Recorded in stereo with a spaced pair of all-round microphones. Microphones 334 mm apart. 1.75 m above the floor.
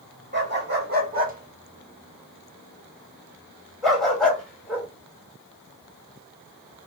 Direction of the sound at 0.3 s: 35° right (ahead or behind).